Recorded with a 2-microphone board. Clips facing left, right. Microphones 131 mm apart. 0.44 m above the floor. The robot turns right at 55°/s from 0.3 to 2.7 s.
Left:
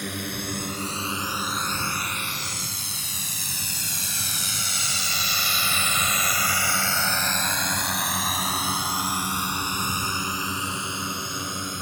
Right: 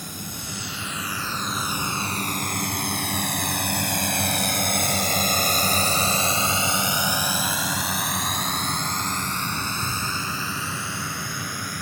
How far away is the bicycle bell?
No bicycle bell in this recording.